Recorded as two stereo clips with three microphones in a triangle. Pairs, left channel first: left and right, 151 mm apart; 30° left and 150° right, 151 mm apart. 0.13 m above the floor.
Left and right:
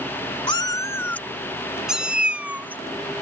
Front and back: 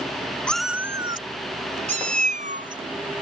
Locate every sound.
0.5 s a cat meowing: 105° left; by 3.2 s 165° right